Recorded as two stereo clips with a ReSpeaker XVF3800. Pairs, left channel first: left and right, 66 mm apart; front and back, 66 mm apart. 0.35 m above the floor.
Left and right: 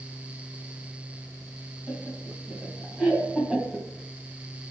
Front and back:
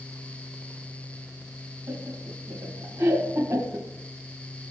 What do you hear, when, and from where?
1.9 s laughter: 175° right, 2.5 m